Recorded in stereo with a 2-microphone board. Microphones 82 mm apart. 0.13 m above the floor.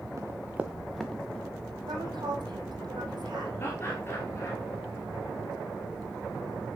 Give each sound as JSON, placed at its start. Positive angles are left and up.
{"t": 0.2, "sound": "running footsteps", "side_deg": -40, "distance_m": 0.8}
{"t": 1.9, "sound": "a woman speaking", "side_deg": -70, "distance_m": 4.0}
{"t": 3.6, "sound": "laughter", "side_deg": 30, "distance_m": 2.0}